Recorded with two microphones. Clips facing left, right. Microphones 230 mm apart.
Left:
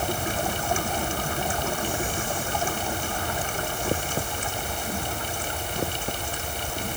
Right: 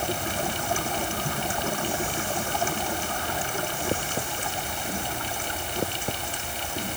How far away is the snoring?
No snoring in this recording.